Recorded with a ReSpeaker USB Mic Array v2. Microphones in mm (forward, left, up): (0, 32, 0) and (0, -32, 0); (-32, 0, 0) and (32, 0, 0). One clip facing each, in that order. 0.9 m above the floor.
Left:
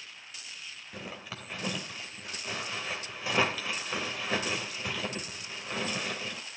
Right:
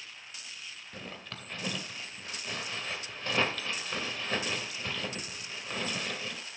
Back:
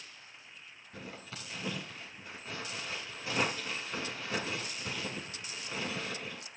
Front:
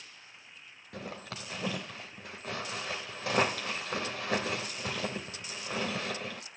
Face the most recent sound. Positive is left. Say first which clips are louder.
# left 3 dB, front 5 dB
turn(degrees=10)